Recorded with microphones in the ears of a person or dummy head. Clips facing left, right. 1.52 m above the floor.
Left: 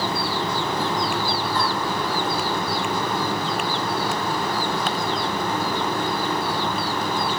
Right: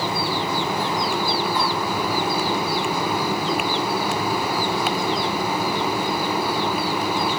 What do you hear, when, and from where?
Only background noise.